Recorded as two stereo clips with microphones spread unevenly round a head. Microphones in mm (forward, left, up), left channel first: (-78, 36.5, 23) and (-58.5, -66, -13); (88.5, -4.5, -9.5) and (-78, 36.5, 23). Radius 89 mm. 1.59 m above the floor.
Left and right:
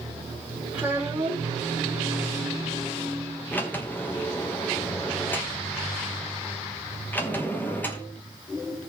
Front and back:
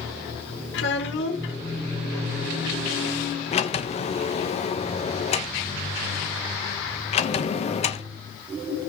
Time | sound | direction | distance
0.7 | a child speaking | 10° left | 3.5 m
3.5 | a sliding door | 40° left | 1.0 m